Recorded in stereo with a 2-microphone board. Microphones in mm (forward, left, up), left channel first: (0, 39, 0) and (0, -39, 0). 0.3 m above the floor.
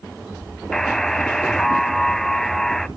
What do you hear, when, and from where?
0.7 s a buzzer: 5° left (ahead or behind), 0.5 m